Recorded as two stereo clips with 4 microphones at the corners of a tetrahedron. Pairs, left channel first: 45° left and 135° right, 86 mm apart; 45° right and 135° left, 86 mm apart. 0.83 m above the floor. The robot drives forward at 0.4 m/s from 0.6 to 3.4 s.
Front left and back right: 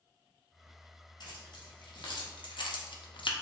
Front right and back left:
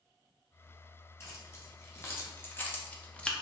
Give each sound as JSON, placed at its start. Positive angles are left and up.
{"t": 1.2, "sound": "keys jangling", "azimuth_deg": 15, "distance_m": 1.4}